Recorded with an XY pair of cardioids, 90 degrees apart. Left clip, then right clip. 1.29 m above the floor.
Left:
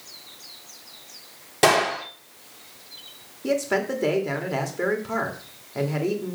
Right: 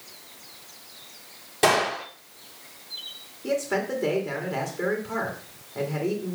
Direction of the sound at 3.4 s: 40° left.